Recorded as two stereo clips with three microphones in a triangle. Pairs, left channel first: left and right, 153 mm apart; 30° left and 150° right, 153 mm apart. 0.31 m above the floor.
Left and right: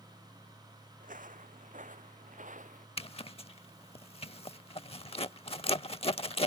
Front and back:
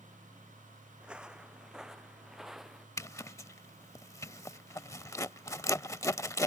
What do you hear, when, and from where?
1.0 s footsteps: 65° right; by 2.9 s 60° right
3.0 s a zipper: 85° left